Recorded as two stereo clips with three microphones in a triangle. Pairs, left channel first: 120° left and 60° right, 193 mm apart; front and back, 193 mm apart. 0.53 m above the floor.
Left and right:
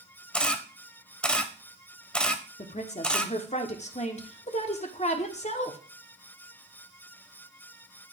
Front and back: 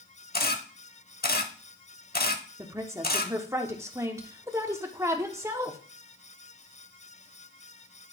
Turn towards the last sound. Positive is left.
turn(degrees=115)